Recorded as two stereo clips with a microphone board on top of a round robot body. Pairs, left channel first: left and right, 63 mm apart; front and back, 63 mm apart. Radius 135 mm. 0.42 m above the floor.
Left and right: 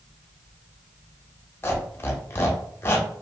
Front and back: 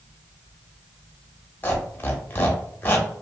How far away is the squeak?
About 0.9 m.